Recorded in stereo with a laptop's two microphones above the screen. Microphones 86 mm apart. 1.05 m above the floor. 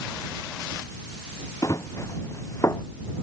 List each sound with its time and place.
1.6 s running footsteps: 40° left (ahead or behind); by 2.8 s 35° left (ahead or behind)